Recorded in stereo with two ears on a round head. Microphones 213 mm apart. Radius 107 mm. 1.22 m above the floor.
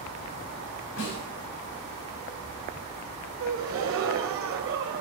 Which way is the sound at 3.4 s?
55° right (ahead or behind).